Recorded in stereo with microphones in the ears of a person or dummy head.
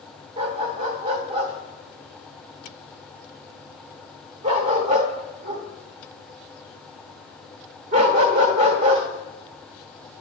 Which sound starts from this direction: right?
A dog barking, at 0.4 s.